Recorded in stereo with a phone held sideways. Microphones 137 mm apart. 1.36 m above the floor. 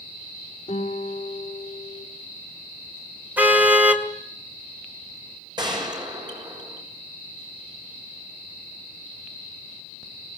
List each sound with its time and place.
0.7 s a guitar: 50° left (ahead or behind), 4 m
3.4 s a car horn: 10° right (ahead or behind), 2.5 m
5.6 s a gunshot: 35° right (ahead or behind), 6.5 m